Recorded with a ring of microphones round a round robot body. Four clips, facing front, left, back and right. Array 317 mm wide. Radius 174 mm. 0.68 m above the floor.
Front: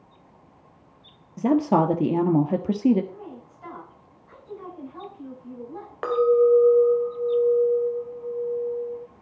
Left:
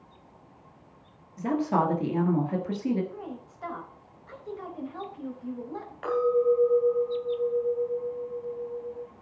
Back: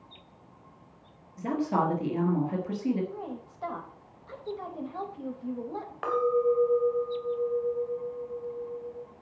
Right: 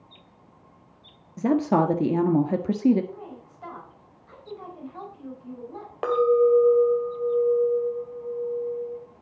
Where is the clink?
60° right, 2.5 m.